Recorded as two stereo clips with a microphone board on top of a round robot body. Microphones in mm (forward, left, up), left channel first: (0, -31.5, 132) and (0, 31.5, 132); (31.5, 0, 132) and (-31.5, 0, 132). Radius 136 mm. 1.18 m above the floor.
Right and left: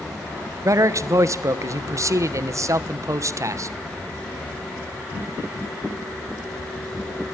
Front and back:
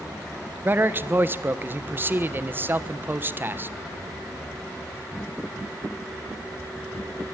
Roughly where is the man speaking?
Behind left.